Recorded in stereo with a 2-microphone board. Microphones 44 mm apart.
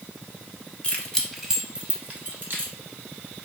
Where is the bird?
No bird in this recording.